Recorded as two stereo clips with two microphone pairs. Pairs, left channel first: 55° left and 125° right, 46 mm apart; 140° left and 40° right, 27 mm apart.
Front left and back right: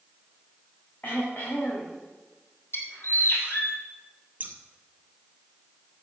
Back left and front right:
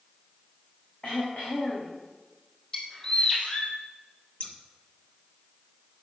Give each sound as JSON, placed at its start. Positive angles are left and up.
{"t": 1.0, "sound": "throat clearing", "azimuth_deg": 100, "distance_m": 4.5}
{"t": 2.7, "sound": "a bird", "azimuth_deg": 80, "distance_m": 2.5}
{"t": 4.4, "sound": "scissors", "azimuth_deg": 180, "distance_m": 1.7}